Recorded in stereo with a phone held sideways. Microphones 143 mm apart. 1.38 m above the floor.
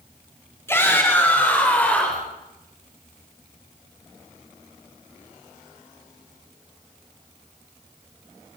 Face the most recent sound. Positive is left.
turn(degrees=10)  # may be behind; listen again after turning